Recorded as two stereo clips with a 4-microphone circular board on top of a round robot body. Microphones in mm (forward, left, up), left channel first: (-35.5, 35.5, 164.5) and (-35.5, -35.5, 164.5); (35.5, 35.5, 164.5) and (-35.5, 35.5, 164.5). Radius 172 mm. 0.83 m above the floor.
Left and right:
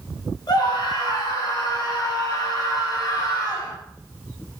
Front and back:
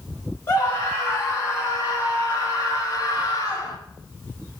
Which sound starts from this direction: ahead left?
A scream, at 0.5 s.